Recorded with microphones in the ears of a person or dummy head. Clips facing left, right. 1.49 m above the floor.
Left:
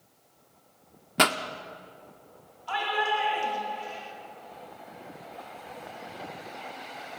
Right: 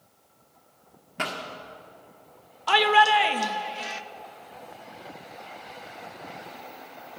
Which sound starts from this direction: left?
A pop, at 1.2 s.